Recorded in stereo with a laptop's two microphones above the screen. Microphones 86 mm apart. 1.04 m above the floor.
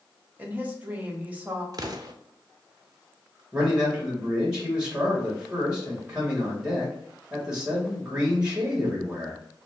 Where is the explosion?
50° right (ahead or behind), 0.5 m.